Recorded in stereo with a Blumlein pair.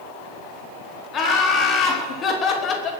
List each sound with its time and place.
1.1 s laughter: 25° left, 4.5 m; by 2.9 s 30° left, 3 m